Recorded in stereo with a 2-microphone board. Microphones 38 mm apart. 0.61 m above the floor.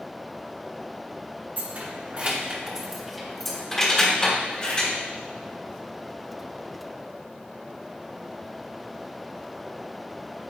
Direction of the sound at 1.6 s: 50° right (ahead or behind).